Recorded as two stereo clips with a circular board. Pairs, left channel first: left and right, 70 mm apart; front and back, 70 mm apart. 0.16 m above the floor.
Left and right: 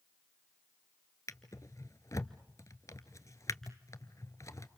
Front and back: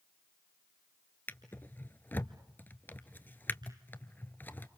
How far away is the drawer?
About 1.0 m.